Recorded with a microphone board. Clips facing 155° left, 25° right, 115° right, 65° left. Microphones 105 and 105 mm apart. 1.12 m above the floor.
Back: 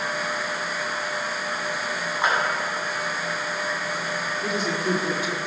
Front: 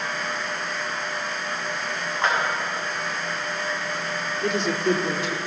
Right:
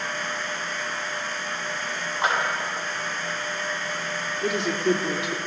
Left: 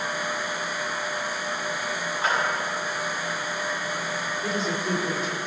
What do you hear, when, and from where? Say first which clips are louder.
2.2 s a clap: even, right 2 dB; 120° right, 8 m
4.4 s a woman speaking: front 4 dB, right 6 dB; 115° right, 3 m